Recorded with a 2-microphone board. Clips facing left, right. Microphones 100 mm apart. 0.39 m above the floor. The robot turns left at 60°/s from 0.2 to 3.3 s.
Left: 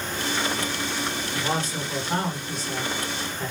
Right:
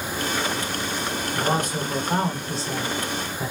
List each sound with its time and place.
1.4 s a man speaking: 10° right, 1.0 m; by 3.5 s 130° right, 1.0 m